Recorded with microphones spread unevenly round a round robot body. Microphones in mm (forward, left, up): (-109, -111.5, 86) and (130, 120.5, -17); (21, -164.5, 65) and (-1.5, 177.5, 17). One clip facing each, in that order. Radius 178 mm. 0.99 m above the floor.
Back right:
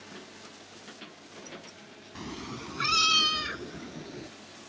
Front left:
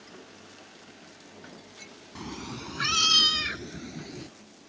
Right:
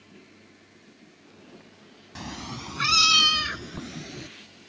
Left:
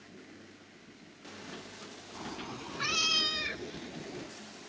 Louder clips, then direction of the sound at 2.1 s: Front left 1 dB, right 4 dB; 50° right.